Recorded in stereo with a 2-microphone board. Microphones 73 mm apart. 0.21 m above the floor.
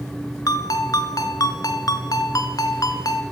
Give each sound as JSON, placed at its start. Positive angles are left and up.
{"t": 0.5, "sound": "a ringtone", "side_deg": 60, "distance_m": 1.5}